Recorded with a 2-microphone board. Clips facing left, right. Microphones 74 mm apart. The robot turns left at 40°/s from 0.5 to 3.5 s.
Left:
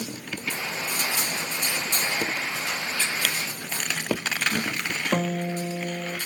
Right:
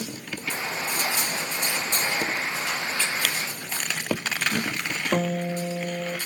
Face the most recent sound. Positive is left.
turn(degrees=-10)  # may be behind; listen again after turning